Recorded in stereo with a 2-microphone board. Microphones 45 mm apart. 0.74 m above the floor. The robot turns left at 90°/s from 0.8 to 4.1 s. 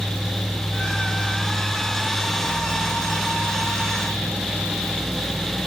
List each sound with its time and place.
Only background noise.